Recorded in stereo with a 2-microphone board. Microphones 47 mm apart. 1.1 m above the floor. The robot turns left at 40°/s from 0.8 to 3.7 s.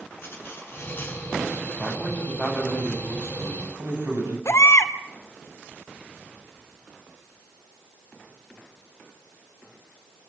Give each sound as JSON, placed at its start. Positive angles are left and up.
{"t": 0.2, "sound": "cutlery clinking", "side_deg": 55, "distance_m": 8.0}
{"t": 1.8, "sound": "a man speaking", "azimuth_deg": 0, "distance_m": 9.0}
{"t": 4.5, "sound": "a baby crying", "side_deg": 75, "distance_m": 1.7}